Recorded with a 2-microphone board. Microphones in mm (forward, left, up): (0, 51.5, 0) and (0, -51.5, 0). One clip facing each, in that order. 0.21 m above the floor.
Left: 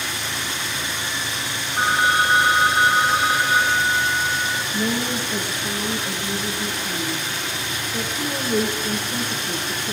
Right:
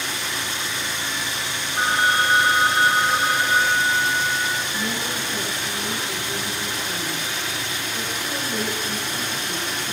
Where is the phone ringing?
10° left (ahead or behind), 1.9 m.